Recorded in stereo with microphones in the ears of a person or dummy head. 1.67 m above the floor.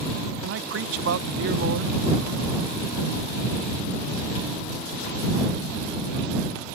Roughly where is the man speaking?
Right.